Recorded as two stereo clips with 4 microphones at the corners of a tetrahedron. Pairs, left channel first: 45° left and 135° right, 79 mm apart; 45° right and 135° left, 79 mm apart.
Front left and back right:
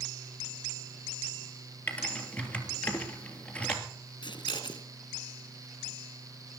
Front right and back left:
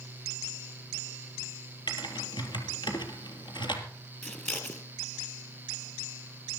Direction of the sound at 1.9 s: 30° right.